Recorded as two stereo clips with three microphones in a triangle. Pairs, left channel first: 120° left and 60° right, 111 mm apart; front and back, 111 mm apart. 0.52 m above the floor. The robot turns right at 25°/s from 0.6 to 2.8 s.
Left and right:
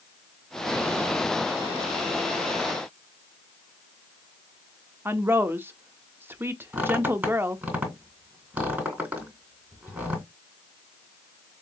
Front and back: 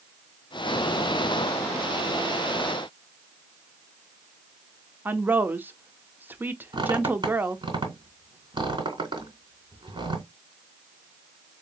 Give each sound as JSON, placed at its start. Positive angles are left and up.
{"t": 5.0, "sound": "a woman speaking", "azimuth_deg": -120, "distance_m": 0.8}
{"t": 6.7, "sound": "a squeak", "azimuth_deg": -135, "distance_m": 3.0}